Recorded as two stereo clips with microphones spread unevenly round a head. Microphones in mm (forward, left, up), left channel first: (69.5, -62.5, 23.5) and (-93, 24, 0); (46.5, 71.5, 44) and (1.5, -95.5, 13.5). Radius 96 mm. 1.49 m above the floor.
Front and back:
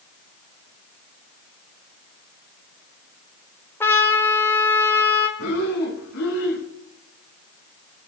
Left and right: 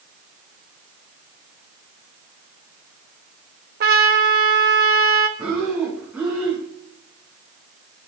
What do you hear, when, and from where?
3.8 s a trumpet: 90° right, 1.4 m
5.4 s breathing: 20° right, 5 m